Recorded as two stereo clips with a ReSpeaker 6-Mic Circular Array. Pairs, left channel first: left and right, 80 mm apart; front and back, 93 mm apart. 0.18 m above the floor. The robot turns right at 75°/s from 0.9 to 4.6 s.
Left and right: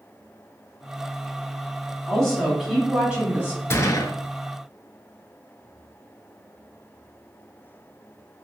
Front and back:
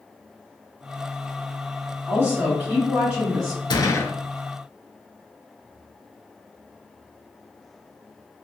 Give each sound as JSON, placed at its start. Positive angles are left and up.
{"t": 2.1, "sound": "a woman speaking", "azimuth_deg": 145, "distance_m": 1.6}
{"t": 3.7, "sound": "a gunshot", "azimuth_deg": 35, "distance_m": 0.5}